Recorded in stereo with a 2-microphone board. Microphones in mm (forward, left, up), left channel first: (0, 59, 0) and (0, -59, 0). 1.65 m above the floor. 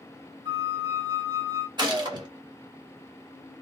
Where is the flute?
40° right (ahead or behind), 1.8 m.